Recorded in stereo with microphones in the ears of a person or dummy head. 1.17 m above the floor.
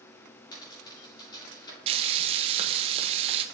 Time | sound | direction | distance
0.5 | a dropped coin | 25° left (ahead or behind) | 6 m
1.9 | frying | 40° right (ahead or behind) | 1.0 m